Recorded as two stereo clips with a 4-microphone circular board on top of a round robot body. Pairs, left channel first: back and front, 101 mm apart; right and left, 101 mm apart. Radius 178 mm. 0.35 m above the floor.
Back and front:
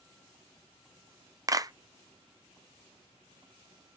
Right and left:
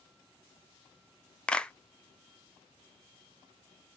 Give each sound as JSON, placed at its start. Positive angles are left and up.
{"t": 1.5, "sound": "a clap", "azimuth_deg": -15, "distance_m": 0.7}